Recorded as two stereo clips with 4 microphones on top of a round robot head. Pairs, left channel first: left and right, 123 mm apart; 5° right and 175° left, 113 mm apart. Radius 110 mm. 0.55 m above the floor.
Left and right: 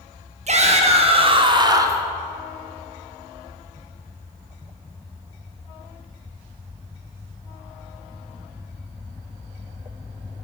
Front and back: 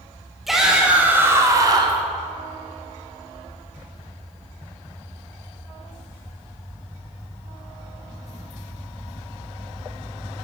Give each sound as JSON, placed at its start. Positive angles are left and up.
{"t": 0.5, "sound": "a shout", "azimuth_deg": -100, "distance_m": 2.0}